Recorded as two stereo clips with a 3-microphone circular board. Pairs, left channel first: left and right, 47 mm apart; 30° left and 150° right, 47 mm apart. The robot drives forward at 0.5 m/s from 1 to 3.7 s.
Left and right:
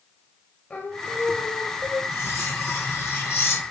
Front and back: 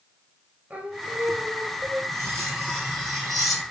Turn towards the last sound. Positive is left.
turn(degrees=120)